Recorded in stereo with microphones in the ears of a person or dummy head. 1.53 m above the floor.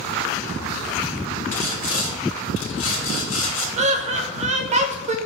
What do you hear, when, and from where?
1.5 s sawing: 80° left, 1.0 m
3.8 s laughter: 35° right (ahead or behind), 0.6 m